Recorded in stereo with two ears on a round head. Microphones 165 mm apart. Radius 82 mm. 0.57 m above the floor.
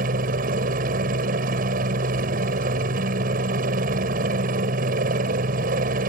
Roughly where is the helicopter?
Right.